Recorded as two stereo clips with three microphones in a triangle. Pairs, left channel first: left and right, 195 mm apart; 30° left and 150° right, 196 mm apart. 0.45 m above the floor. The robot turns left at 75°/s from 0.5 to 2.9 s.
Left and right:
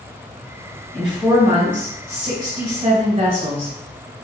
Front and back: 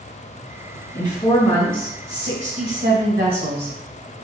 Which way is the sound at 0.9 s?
5° left.